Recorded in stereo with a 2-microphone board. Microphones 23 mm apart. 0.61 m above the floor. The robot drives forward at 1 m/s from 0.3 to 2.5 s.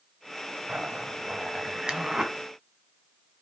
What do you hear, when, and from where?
0.7 s a zipper: 75° right (ahead or behind), 0.9 m; by 2.3 s 30° right (ahead or behind), 1.7 m